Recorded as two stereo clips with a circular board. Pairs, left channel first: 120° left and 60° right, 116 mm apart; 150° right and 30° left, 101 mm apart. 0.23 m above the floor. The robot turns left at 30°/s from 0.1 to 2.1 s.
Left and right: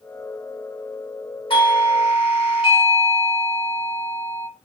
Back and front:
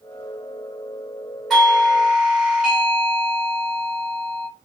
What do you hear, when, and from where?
1.5 s a doorbell: 125° left, 2.0 m; by 4.5 s 105° left, 2.0 m